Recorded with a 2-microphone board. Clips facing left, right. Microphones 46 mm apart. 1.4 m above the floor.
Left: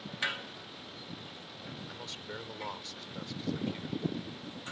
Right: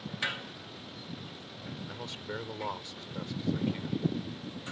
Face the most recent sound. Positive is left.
turn(degrees=-15)  # may be behind; listen again after turning